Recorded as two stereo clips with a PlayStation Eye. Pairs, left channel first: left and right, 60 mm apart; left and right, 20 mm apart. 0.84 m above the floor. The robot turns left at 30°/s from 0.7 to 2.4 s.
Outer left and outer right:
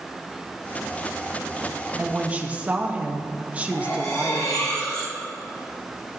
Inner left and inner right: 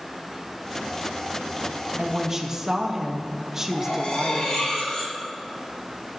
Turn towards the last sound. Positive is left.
turn(degrees=75)  # may be behind; listen again after turning